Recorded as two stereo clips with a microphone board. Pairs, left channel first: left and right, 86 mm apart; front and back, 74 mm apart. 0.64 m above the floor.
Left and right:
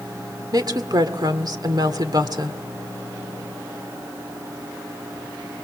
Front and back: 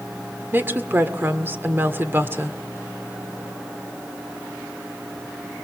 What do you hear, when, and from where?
0.5 s a woman speaking: 120° right, 1.8 m